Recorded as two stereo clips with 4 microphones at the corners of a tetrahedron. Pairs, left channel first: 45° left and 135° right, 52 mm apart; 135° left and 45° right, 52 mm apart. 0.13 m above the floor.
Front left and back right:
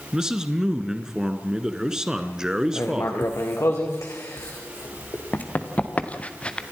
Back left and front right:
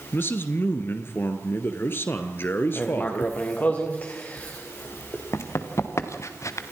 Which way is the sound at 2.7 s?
75° left.